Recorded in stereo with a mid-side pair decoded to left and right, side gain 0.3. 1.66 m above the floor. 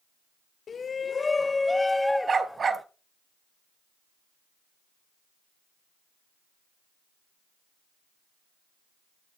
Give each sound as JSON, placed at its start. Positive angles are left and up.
{"t": 0.7, "sound": "a shout", "azimuth_deg": 65, "distance_m": 0.7}
{"t": 2.3, "sound": "a dog barking", "azimuth_deg": -60, "distance_m": 3.5}